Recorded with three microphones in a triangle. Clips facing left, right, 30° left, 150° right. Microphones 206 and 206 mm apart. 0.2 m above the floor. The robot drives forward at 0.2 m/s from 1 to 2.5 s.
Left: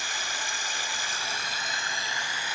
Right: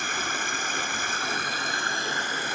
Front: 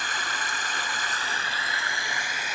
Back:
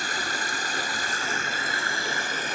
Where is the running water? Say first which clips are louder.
Right 6 dB, back 3 dB; 110° right, 1.6 m; by 2.6 s 120° right, 1.7 m.